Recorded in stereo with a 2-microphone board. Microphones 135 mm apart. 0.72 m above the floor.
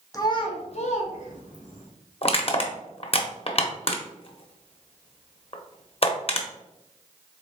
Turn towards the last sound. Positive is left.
turn(degrees=45)  # may be behind; listen again after turning